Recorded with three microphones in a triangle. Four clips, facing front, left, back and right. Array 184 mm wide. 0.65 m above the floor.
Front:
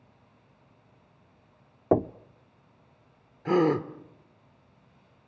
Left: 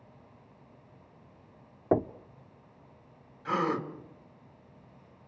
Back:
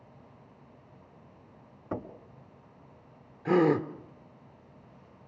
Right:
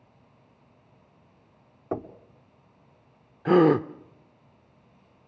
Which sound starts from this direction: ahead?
Knocking, at 1.9 s.